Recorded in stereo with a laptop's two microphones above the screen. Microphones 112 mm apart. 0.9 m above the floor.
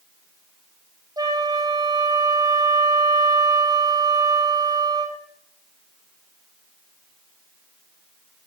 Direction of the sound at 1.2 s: 35° right (ahead or behind).